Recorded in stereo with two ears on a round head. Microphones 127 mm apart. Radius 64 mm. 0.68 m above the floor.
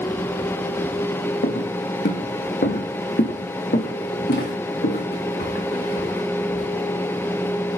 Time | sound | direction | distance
1.4 | footsteps | 75° left (ahead or behind) | 2.5 m